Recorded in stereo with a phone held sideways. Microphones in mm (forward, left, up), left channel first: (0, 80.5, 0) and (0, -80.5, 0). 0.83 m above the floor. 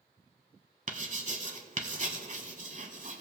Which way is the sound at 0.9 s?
50° right (ahead or behind).